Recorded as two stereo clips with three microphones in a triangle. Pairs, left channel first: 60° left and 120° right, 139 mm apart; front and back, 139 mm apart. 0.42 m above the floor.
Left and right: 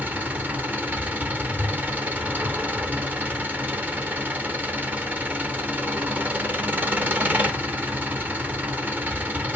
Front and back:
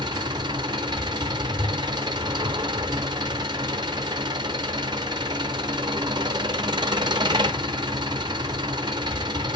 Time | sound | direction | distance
0.0 | an engine running | 175° left | 0.8 m